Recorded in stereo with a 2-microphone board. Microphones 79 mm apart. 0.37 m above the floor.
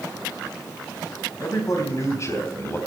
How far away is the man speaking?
About 3.5 m.